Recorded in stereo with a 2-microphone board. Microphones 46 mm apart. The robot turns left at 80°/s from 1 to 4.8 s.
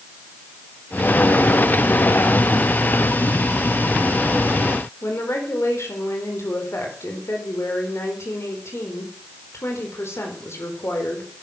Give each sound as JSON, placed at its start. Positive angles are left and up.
{"t": 5.0, "sound": "a woman speaking", "side_deg": 75, "distance_m": 4.5}